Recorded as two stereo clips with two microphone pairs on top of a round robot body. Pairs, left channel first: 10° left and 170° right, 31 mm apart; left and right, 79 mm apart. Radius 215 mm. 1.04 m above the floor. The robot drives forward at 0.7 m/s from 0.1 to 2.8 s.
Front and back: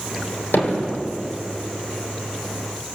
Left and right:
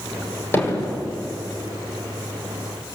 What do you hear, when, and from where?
0.5 s hammering: 25° left, 4.5 m; by 1.0 s 30° left, 4 m